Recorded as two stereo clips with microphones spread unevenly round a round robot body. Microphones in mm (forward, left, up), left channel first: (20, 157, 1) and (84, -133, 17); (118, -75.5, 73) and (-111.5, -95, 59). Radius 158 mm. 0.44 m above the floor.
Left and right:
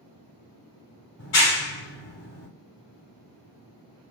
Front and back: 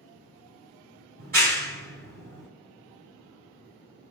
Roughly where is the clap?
Behind left.